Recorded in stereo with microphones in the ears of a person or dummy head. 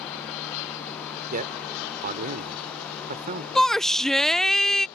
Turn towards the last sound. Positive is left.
turn(degrees=5)  # may be behind; listen again after turning